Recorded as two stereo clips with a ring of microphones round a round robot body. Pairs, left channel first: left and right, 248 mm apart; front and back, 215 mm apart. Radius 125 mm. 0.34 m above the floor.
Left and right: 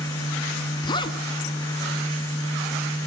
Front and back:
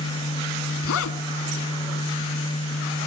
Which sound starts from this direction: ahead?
A zipper, at 0.8 s.